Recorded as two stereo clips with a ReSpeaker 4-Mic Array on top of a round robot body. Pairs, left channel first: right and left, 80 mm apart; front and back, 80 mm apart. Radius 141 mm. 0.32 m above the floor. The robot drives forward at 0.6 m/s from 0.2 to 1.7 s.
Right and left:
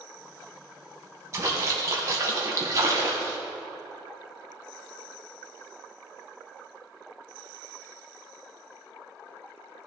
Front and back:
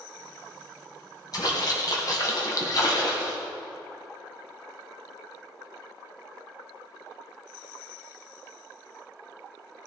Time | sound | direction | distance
1.3 | a splash | 40° left | 3 m